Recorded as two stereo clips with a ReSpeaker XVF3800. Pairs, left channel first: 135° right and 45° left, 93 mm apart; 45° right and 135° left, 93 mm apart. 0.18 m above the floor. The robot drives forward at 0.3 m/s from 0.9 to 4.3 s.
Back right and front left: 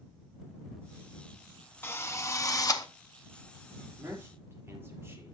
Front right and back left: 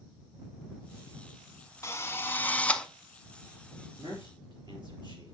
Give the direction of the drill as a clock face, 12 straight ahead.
3 o'clock.